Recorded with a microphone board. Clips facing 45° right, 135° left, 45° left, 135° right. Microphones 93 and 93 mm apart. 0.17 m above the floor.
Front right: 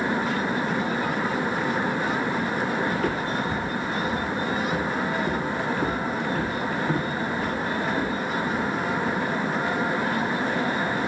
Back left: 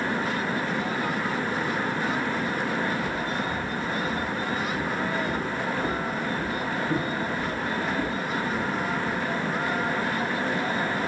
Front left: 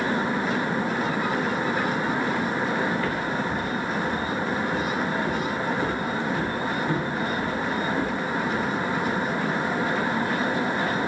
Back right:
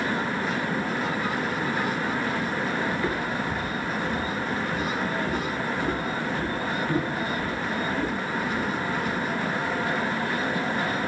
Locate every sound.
2.9 s footsteps: 70° right, 1.2 m; by 9.2 s 15° right, 5 m